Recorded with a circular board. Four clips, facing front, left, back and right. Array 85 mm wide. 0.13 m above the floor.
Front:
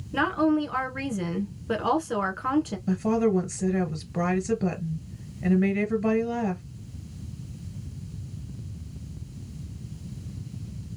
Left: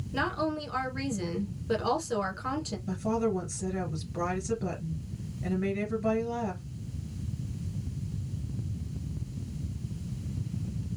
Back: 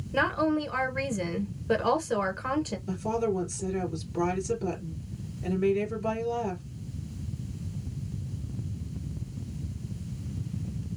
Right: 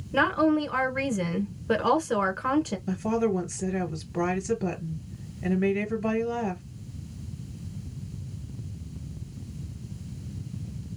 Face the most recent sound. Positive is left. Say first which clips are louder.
# left 1 dB, front 6 dB
turn(degrees=-35)